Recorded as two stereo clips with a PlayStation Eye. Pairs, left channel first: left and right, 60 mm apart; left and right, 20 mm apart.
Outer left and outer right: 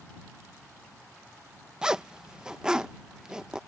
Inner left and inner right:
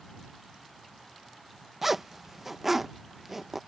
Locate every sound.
1.8 s a zipper: 10° right (ahead or behind)